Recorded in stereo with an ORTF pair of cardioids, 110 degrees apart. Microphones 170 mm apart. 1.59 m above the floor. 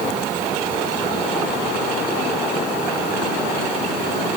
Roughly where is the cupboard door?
I don't hear a cupboard door.